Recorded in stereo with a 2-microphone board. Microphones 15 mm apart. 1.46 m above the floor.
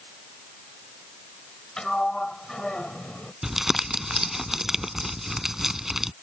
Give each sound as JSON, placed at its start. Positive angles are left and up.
{"t": 1.8, "sound": "a sliding door", "side_deg": 55}
{"t": 3.4, "sound": "crumpling", "side_deg": -25}